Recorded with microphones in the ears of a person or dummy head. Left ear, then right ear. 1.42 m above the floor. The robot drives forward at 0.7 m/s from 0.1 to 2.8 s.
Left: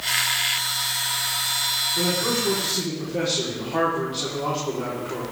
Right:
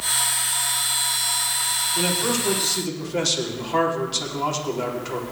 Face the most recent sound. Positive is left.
turn(degrees=-85)